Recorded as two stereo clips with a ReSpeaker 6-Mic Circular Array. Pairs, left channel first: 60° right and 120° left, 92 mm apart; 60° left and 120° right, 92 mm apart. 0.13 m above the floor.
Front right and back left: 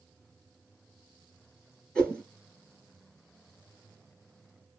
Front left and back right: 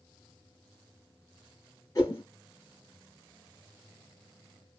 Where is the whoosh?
20° left, 2 m.